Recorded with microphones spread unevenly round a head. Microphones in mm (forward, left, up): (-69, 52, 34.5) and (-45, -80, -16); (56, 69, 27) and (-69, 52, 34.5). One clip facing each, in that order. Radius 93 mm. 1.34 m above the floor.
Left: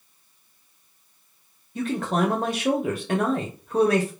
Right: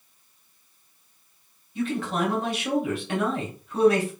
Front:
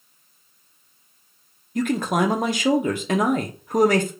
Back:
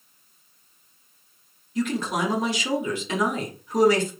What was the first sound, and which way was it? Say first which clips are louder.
A man speaking: left 2 dB, front 4 dB; 50° left.